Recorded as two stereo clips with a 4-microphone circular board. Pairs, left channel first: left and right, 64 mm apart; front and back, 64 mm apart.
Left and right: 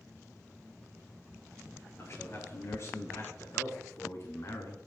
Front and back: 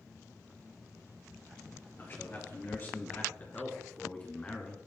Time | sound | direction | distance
2.0 | a man speaking | 50° left | 3.5 m